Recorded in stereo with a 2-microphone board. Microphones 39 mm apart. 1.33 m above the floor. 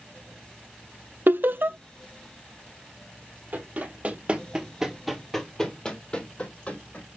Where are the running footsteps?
50° right (ahead or behind), 2 m; by 7.0 s 40° left (ahead or behind), 3 m.